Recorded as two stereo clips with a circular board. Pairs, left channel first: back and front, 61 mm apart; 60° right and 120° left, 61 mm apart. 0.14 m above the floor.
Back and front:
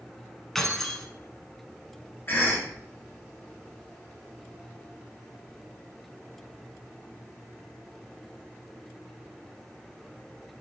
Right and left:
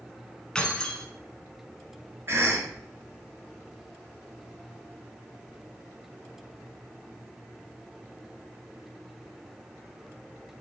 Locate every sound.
0.6 s keys jangling: 105° right, 0.9 m
2.3 s a cough: 145° left, 2.5 m